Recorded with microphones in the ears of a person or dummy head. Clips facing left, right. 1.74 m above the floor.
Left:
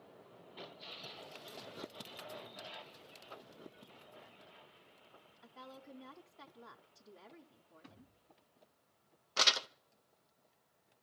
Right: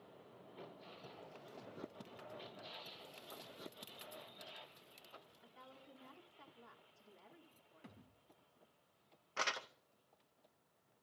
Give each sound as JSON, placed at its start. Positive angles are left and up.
{"t": 5.4, "sound": "a woman speaking", "side_deg": 75, "distance_m": 1.7}
{"t": 7.8, "sound": "a thud", "side_deg": -40, "distance_m": 3.5}
{"t": 9.4, "sound": "crumpling", "side_deg": 55, "distance_m": 0.7}